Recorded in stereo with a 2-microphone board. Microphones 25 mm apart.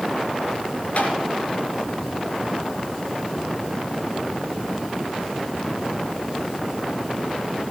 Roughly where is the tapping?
Left.